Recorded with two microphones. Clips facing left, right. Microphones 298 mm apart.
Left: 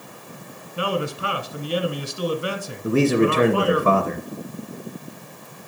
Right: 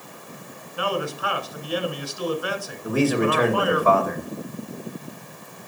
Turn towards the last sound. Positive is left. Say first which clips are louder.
# left 3 dB
turn(degrees=30)  # may be behind; listen again after turning